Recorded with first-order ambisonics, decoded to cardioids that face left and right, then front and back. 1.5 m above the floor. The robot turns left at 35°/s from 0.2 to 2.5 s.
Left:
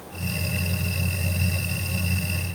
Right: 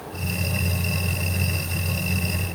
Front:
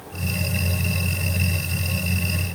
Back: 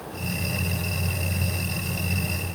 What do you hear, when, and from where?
Only background noise.